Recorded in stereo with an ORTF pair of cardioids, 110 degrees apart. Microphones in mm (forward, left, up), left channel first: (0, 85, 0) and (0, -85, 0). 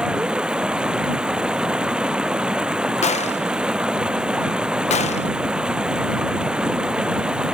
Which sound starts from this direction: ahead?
Running water, at 0.0 s.